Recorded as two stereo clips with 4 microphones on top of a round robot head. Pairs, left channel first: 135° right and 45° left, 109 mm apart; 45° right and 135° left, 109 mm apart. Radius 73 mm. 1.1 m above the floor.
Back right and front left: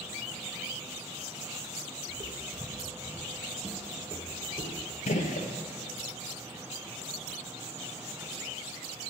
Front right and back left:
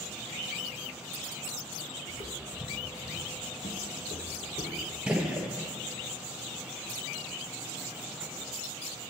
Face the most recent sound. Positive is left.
turn(degrees=-140)